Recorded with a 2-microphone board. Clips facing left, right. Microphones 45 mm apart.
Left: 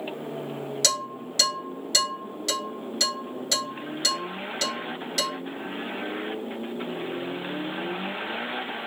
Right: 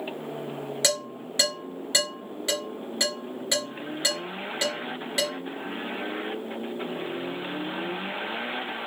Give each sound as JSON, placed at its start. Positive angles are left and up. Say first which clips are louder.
{"t": 0.8, "sound": "dishes clattering", "louder": "right 1 dB", "side_deg": -15, "distance_m": 3.0}